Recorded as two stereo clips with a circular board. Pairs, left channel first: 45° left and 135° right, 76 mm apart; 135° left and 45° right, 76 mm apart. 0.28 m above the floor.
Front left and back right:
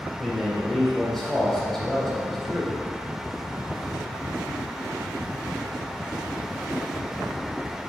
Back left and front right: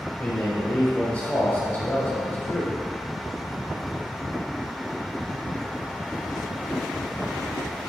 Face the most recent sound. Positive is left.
turn(degrees=125)